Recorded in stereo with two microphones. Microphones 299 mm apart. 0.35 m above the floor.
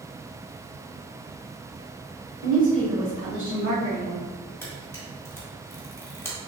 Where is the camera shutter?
10° left (ahead or behind), 1.4 m.